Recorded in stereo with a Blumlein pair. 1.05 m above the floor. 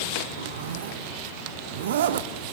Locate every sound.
0.4 s a zipper: 60° right, 0.8 m